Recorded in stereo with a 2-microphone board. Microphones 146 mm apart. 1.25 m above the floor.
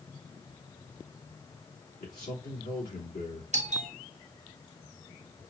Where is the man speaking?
70° left (ahead or behind), 3 m.